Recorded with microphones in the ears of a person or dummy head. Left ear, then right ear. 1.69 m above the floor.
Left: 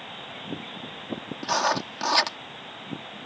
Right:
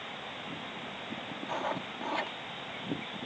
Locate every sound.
1.4 s writing: 65° left (ahead or behind)